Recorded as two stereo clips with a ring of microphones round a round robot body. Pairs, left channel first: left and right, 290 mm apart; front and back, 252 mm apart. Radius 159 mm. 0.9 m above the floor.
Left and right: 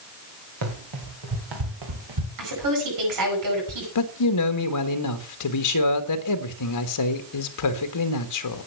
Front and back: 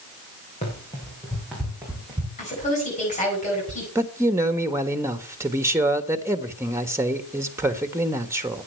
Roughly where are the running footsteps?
Right.